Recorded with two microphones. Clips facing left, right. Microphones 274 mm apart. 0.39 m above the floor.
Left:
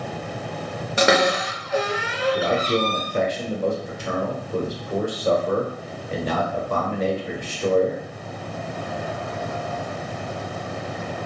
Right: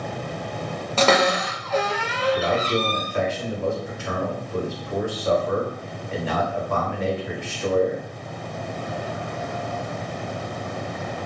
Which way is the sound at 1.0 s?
15° left (ahead or behind).